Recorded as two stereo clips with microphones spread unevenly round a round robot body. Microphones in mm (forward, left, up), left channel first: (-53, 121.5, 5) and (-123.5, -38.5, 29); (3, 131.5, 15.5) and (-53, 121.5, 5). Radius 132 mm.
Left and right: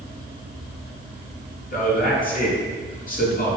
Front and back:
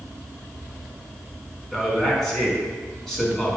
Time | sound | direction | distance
1.7 | a man speaking | 95° left | 4 m